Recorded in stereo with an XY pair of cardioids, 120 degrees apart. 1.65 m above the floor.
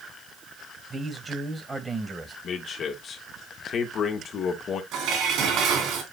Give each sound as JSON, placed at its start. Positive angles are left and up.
{"t": 0.9, "sound": "a man speaking", "azimuth_deg": -20, "distance_m": 1.8}
{"t": 2.4, "sound": "a man speaking", "azimuth_deg": 50, "distance_m": 2.5}
{"t": 4.9, "sound": "dishes clattering", "azimuth_deg": -70, "distance_m": 3.0}